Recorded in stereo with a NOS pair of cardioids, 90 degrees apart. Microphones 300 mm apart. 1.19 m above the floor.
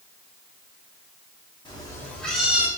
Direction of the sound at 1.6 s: 15° left.